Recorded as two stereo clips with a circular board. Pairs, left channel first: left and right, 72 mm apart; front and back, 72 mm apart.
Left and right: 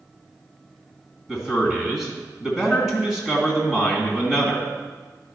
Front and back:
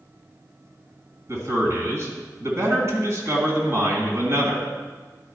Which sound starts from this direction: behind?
A man speaking, at 1.3 s.